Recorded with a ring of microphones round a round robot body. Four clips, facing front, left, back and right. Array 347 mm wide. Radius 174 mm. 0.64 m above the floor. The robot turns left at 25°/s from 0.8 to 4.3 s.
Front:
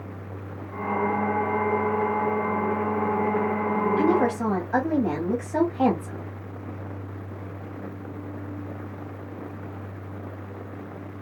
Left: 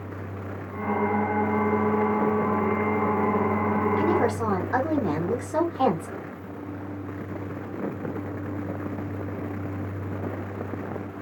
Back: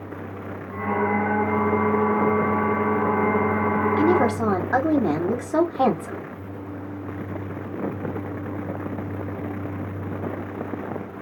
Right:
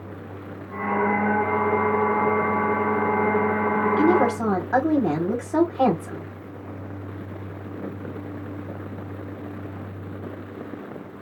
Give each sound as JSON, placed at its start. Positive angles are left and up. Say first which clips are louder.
{"t": 4.0, "sound": "a woman speaking", "louder": "right 4 dB, back 2 dB", "azimuth_deg": -140, "distance_m": 1.7}